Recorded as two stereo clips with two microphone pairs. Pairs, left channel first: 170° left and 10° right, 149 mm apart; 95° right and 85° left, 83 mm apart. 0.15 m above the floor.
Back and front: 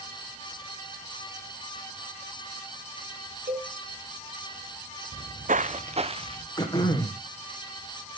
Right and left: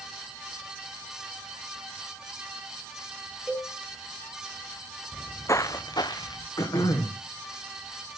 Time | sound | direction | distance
3.5 | a cowbell | 15° right | 4.5 m
5.1 | footsteps | 15° right | 0.7 m
6.6 | throat clearing | 125° right | 3.5 m